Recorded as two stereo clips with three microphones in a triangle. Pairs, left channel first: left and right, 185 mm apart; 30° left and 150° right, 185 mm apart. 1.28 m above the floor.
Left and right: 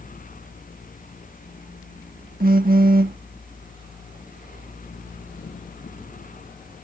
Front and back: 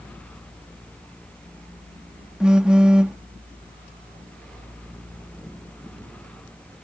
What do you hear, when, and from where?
2.4 s a phone buzzing: 65° right